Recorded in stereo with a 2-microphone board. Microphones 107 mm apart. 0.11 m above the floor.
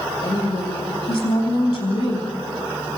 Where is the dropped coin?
No dropped coin in this recording.